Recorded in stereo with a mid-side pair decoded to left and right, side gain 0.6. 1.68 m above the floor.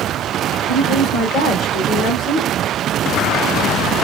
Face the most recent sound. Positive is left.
turn(degrees=55)